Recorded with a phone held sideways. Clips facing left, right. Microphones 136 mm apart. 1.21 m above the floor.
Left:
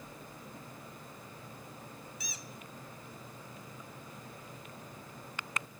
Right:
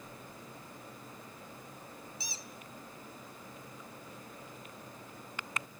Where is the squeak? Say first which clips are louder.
Even; 30° right (ahead or behind), 0.6 m.